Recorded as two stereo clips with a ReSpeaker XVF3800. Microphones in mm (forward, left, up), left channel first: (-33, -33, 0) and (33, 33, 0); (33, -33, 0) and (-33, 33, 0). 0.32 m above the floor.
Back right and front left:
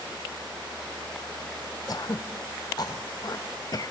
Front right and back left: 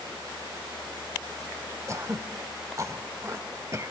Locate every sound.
1.9 s throat clearing: 175° right, 0.6 m